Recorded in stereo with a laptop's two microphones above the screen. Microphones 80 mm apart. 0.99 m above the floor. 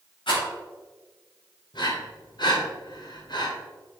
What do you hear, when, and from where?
0.3 s a rattle: 85° left, 3 m
1.7 s breathing: 65° left (ahead or behind), 1.3 m